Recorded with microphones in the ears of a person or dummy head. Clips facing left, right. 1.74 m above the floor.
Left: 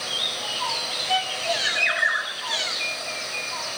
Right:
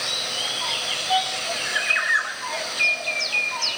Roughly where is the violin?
Left.